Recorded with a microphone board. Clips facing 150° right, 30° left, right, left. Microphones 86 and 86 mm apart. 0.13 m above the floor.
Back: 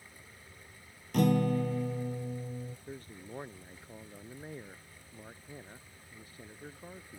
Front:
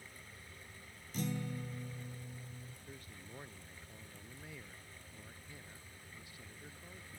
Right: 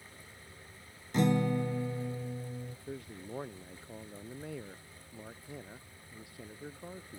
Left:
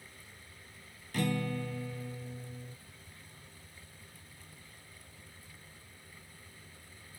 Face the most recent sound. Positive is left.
turn(degrees=-100)